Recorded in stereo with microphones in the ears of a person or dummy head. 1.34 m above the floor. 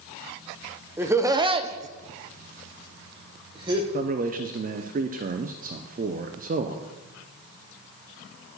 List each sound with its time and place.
1.0 s laughter: 10° right (ahead or behind), 0.9 m; by 3.8 s 25° right (ahead or behind), 1.5 m
3.9 s a man speaking: 40° right (ahead or behind), 0.6 m